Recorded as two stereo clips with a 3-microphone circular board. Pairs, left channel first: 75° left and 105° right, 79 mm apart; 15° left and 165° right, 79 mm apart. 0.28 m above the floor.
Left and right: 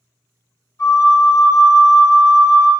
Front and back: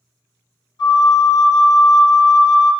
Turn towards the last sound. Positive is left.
turn(degrees=30)